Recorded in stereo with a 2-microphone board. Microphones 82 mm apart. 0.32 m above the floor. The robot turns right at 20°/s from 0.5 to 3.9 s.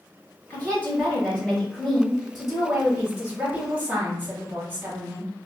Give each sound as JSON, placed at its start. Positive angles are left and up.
{"t": 0.5, "sound": "a woman speaking", "azimuth_deg": 145, "distance_m": 1.5}